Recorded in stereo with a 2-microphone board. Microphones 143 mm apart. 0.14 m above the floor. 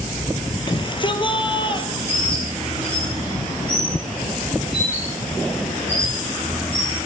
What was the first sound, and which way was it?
A shout, 35° left (ahead or behind).